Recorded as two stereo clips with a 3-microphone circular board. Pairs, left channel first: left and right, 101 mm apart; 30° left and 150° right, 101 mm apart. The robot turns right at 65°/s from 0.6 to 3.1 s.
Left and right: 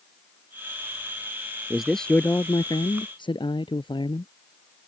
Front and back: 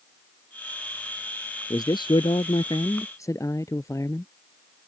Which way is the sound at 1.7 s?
10° right.